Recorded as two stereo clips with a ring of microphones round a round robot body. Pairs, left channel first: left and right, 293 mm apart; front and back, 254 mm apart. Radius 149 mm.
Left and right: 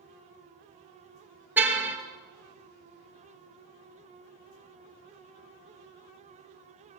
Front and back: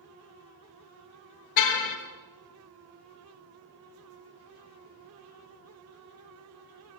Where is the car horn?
5° right, 3 m.